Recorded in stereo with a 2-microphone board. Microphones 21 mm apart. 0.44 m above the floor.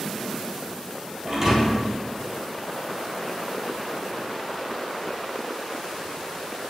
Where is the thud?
25° right (ahead or behind), 3 m.